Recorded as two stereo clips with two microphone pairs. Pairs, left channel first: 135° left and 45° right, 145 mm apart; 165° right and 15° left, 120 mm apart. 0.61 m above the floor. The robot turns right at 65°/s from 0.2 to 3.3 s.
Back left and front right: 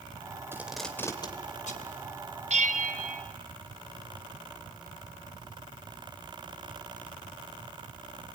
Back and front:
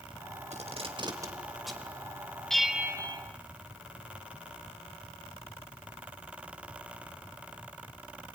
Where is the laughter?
I don't hear laughter.